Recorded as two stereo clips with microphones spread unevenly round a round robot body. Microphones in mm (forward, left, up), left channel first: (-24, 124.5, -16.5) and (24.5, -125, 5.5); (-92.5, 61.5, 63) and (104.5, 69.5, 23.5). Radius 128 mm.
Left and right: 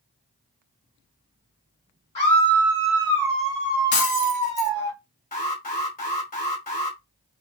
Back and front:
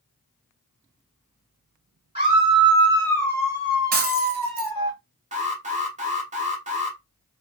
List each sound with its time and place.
2.1 s a scream: 45° left, 1.9 m; by 4.9 s 105° right, 1.4 m
3.9 s breaking glass: 50° left, 0.8 m
5.3 s an alarm: 45° left, 1.2 m